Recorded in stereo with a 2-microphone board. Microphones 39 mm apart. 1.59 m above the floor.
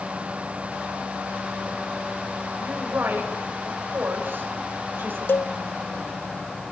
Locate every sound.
2.6 s a woman speaking: 60° right (ahead or behind), 6 m
5.3 s a cowbell: 65° left (ahead or behind), 0.8 m